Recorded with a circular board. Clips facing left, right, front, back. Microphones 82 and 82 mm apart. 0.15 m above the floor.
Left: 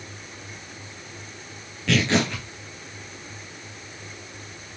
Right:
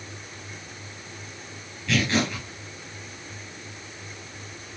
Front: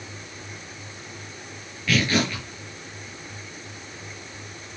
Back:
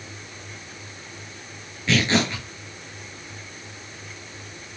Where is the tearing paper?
115° left, 6.5 m.